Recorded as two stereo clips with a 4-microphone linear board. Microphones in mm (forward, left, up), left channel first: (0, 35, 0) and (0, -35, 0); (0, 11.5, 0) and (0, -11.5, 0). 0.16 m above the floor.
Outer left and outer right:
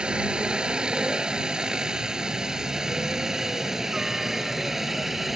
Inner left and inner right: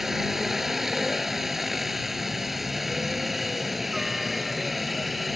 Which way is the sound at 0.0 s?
15° right (ahead or behind).